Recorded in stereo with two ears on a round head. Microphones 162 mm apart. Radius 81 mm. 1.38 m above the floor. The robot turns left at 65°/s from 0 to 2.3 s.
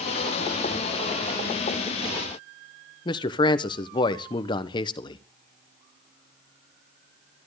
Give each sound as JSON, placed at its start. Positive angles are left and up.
{"t": 3.0, "sound": "a man speaking", "side_deg": 25, "distance_m": 1.0}